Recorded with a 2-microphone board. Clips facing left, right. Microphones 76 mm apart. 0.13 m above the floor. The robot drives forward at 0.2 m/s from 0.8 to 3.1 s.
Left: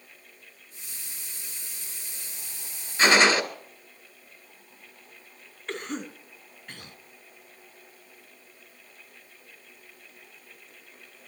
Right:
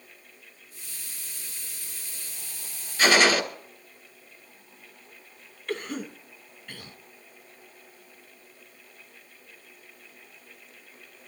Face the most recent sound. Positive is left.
turn(degrees=20)  # may be behind; listen again after turning